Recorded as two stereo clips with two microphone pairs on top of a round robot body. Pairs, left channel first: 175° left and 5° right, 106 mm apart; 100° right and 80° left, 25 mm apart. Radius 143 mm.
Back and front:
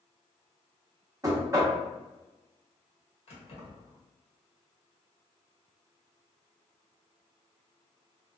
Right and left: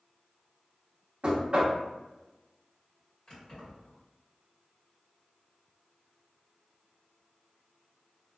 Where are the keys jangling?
160° right, 1.2 m.